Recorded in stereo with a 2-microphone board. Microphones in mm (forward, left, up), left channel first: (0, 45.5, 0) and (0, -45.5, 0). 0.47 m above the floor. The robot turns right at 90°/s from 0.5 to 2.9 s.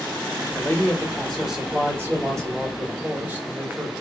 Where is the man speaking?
105° left, 1.3 m; by 3.9 s 40° right, 1.3 m.